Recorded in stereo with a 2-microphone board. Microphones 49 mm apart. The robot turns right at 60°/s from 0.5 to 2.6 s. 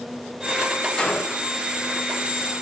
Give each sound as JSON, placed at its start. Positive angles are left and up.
{"t": 1.0, "sound": "a gunshot", "azimuth_deg": 20, "distance_m": 0.8}